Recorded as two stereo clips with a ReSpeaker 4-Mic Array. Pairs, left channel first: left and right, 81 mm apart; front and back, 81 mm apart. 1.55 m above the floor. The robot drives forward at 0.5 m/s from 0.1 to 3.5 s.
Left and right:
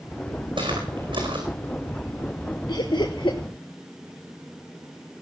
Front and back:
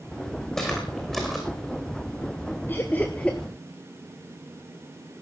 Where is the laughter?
65° left, 1.5 m; by 3.4 s 80° left, 1.4 m.